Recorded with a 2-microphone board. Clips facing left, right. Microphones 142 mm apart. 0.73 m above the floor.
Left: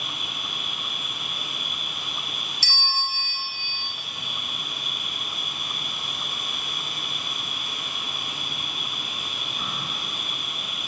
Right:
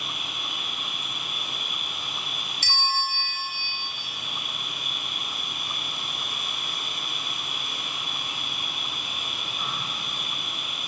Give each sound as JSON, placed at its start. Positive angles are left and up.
{"t": 0.0, "sound": "an insect", "side_deg": 55, "distance_m": 2.5}
{"t": 2.6, "sound": "a bell", "side_deg": -50, "distance_m": 1.0}